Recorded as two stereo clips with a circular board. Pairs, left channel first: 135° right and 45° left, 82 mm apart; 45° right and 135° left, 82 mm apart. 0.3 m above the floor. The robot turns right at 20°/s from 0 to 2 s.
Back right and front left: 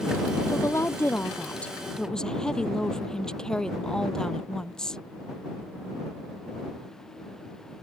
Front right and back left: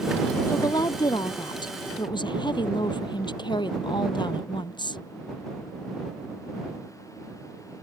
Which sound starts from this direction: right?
A woman speaking, at 0.5 s.